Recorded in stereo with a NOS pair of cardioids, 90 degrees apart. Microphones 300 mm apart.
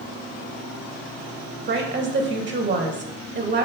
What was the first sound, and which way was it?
A woman speaking, 40° right.